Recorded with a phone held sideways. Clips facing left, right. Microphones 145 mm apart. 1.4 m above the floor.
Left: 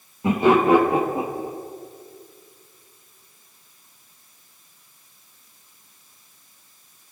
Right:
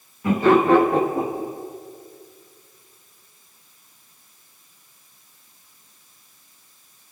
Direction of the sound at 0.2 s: 25° left (ahead or behind).